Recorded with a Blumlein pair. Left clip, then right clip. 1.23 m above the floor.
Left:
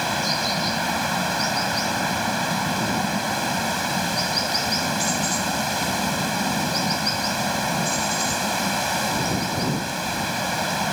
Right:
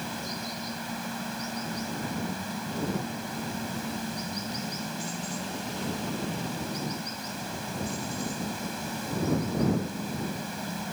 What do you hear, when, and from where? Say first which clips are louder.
0.0 s running water: left 13 dB; 35° left